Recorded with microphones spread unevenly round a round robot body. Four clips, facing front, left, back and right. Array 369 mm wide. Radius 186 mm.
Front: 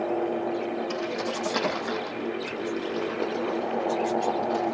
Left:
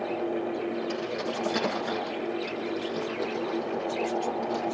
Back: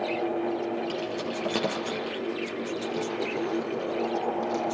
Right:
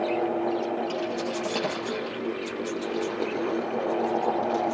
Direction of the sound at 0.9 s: 175° left.